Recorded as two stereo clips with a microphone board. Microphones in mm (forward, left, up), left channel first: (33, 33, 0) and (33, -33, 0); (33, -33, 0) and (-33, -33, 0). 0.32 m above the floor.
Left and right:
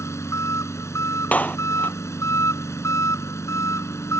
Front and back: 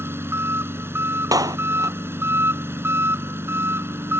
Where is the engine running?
130° left.